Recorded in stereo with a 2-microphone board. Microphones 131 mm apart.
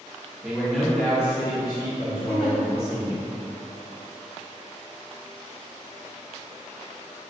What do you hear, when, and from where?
0.4 s a man speaking: 10° right (ahead or behind), 0.8 m; by 3.3 s 55° left (ahead or behind), 1.8 m
2.3 s a giggle: 25° right (ahead or behind), 1.9 m